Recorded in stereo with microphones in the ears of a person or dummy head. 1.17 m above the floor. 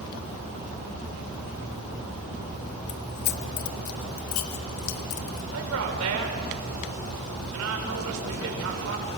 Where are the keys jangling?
30° left (ahead or behind), 0.5 m; by 5.4 s 85° left, 2.5 m.